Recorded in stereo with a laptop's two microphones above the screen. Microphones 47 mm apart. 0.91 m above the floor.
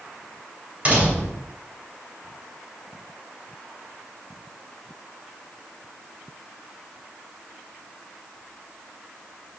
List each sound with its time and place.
0.8 s a door slam: 25° right (ahead or behind), 3.5 m